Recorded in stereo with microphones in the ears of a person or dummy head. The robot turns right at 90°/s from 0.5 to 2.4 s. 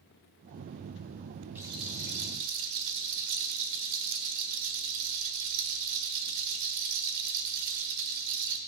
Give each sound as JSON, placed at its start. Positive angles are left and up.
{"t": 1.6, "sound": "a rattle", "azimuth_deg": -175, "distance_m": 1.5}